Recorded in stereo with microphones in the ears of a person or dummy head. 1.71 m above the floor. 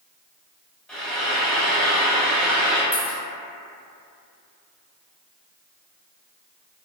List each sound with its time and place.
0.9 s frying: 10° left (ahead or behind), 0.7 m
2.9 s a dropped coin: 10° left (ahead or behind), 1.7 m